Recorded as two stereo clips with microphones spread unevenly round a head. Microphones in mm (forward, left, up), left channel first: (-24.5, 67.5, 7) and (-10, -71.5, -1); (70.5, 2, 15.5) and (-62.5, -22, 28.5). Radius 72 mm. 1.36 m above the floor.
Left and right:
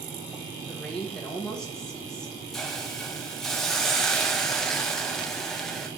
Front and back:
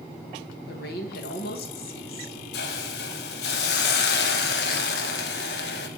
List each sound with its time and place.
0.7 s a woman speaking: 10° left, 1.6 m
2.5 s a hiss: 10° left, 0.9 m